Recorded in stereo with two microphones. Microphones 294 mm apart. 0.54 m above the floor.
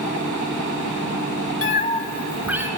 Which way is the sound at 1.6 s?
45° left (ahead or behind).